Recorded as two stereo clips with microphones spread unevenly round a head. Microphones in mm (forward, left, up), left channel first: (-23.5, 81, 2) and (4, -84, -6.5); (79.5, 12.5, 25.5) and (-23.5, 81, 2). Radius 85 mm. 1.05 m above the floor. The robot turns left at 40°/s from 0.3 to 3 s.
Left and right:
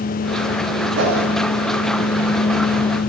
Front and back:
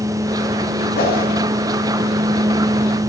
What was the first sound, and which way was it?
A whoosh, 60° right.